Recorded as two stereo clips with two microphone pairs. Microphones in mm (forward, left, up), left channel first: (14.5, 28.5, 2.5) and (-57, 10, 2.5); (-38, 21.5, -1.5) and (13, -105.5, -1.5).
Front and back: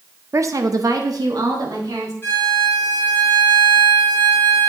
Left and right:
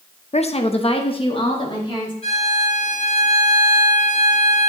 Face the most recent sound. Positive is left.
turn(degrees=70)